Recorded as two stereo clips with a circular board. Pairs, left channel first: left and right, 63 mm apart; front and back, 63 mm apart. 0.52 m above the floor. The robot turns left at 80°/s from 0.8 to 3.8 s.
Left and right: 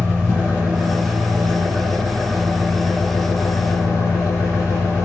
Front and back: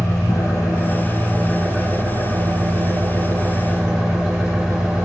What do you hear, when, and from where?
0.0 s an engine running: 25° right, 4.5 m; by 5.0 s 95° left, 4.5 m